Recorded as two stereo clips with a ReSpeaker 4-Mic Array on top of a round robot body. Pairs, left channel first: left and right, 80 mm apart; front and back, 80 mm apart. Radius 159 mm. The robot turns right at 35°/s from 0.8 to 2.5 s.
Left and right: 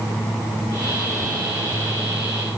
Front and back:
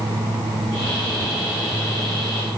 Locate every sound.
Only background noise.